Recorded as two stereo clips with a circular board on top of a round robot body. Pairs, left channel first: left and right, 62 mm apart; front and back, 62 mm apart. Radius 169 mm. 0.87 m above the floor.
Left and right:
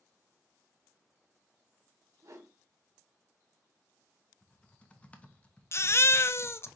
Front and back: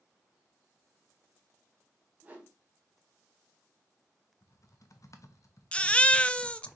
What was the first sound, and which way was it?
A whoosh, 115° right.